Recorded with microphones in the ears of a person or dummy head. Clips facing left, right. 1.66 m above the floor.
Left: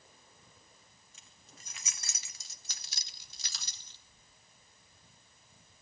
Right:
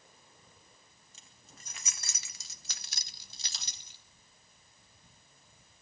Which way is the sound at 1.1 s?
45° right (ahead or behind).